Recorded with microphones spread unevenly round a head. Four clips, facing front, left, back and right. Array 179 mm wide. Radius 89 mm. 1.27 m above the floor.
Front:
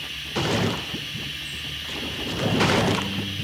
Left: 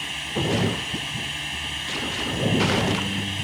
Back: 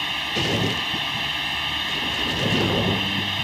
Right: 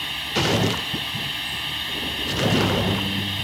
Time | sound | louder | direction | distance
0.0 | running water | right 2 dB, back 2 dB | 175° right | ?